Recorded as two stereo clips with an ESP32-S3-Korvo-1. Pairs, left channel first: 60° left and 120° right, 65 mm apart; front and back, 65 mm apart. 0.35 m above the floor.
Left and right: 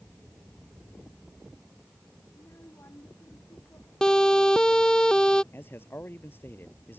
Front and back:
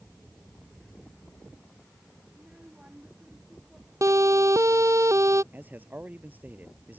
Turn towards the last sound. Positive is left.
turn(degrees=115)